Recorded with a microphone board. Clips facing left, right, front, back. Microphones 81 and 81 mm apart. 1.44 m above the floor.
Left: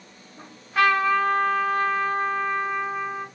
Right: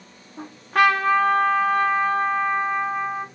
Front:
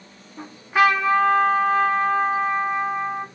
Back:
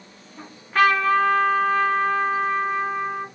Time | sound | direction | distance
0.4 | a trumpet | 80° right | 0.6 m